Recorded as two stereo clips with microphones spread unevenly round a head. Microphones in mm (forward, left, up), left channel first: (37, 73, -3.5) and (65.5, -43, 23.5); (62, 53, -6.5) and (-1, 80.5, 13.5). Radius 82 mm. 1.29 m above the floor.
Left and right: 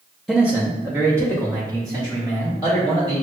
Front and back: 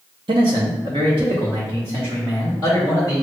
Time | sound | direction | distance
0.3 | a man speaking | 170° right | 0.6 m